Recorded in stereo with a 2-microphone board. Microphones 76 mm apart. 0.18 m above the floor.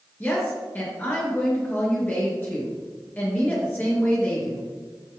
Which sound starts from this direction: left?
A woman speaking, at 0.2 s.